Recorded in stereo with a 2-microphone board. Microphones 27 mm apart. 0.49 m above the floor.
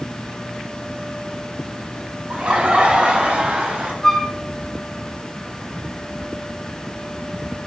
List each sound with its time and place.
2.3 s laughter: 45° right (ahead or behind), 1.8 m; by 3.9 s 55° right (ahead or behind), 3 m
4.0 s a flute: 15° left (ahead or behind), 1.1 m